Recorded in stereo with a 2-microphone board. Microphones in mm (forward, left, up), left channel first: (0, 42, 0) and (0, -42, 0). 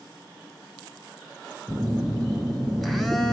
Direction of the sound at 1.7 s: Centre (ahead or behind).